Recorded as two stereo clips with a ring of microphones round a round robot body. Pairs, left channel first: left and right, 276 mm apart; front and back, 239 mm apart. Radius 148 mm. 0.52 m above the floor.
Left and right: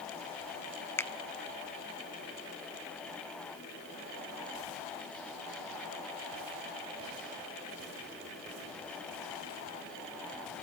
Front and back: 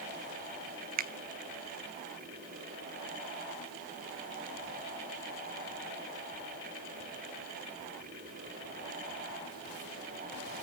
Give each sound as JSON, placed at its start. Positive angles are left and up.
{"t": 1.0, "sound": "a finger snap", "azimuth_deg": 165, "distance_m": 0.7}